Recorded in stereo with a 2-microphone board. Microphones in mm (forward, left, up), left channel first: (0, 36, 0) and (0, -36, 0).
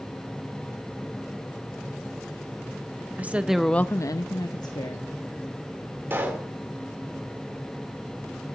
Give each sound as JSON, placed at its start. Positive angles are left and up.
{"t": 3.2, "sound": "a woman speaking", "side_deg": -25, "distance_m": 0.9}
{"t": 6.1, "sound": "a pop", "side_deg": -30, "distance_m": 1.9}